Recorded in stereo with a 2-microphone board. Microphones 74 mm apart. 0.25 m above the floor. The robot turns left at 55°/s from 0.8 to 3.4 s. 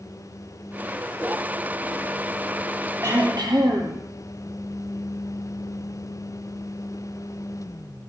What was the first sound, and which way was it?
Throat clearing, 45° right (ahead or behind).